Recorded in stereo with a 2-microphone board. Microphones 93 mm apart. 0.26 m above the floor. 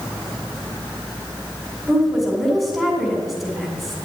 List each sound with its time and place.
1.9 s a woman speaking: centre (ahead or behind), 2 m